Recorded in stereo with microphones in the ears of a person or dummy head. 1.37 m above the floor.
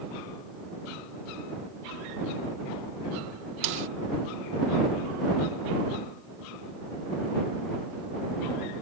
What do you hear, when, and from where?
3.6 s a snare drum: 70° right (ahead or behind)